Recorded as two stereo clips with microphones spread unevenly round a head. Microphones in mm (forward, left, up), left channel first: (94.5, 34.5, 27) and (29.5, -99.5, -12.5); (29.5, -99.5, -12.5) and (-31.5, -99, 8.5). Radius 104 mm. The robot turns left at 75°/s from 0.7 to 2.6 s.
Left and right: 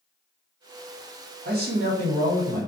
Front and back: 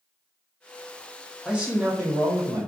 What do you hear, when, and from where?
1.4 s a man speaking: 95° right, 1.2 m; by 2.6 s straight behind, 1.2 m